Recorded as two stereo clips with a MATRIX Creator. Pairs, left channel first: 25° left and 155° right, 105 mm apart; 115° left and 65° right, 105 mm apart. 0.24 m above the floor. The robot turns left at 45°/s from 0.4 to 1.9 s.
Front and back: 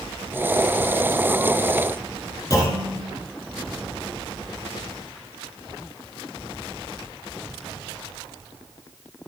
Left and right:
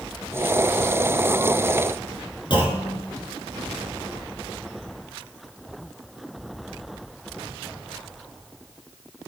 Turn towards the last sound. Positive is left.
turn(degrees=75)